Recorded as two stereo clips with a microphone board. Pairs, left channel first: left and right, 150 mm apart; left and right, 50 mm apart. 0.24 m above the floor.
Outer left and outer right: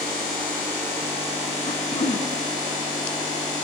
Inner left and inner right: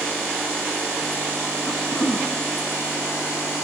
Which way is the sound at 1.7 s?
60° left (ahead or behind).